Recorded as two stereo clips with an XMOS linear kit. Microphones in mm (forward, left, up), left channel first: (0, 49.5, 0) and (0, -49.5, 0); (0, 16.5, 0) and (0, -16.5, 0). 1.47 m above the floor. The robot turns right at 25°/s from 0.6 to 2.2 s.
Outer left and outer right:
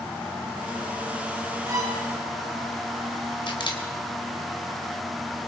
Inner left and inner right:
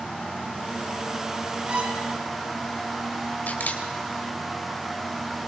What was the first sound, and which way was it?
A violin, 35° right (ahead or behind).